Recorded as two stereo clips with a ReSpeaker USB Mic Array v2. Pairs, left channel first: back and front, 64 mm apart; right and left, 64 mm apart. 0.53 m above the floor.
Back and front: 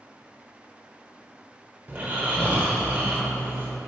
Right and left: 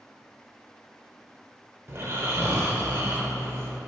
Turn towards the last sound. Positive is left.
turn(degrees=50)